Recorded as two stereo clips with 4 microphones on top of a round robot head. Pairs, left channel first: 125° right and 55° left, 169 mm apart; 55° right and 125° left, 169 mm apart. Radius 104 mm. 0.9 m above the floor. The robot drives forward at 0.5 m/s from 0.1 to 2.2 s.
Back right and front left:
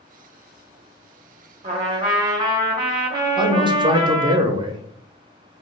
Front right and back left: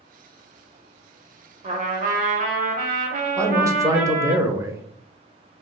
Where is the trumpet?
90° left, 0.9 m; by 4.4 s 115° left, 0.9 m.